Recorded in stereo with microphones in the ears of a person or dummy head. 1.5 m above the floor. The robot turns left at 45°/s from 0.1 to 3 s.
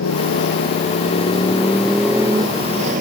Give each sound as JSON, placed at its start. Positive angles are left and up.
{"t": 0.0, "sound": "a motorcycle", "azimuth_deg": 85}